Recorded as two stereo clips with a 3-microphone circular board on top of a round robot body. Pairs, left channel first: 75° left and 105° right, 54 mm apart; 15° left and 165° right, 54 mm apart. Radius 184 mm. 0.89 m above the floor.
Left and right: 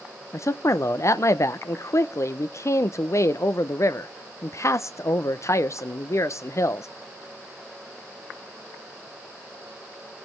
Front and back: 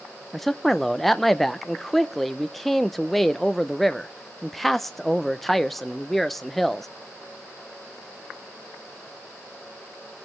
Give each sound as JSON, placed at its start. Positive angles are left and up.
{"t": 0.3, "sound": "a man speaking", "azimuth_deg": 100, "distance_m": 0.6}